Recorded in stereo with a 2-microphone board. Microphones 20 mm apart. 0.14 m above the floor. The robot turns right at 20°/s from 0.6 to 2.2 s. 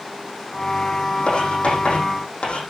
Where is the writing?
70° left (ahead or behind), 6 m; by 2.6 s 80° left, 6 m.